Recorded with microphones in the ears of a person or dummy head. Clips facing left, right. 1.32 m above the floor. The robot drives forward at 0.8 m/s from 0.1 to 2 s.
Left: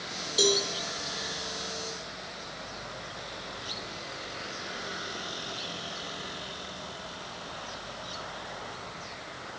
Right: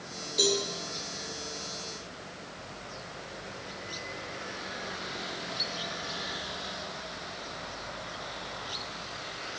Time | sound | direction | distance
0.4 | a cowbell | 10° left (ahead or behind) | 2 m